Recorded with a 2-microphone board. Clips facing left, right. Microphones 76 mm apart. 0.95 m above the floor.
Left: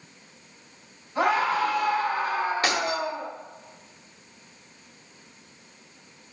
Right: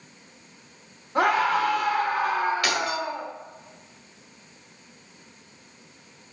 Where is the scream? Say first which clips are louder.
Right 2 dB; 65° right (ahead or behind), 2.5 m.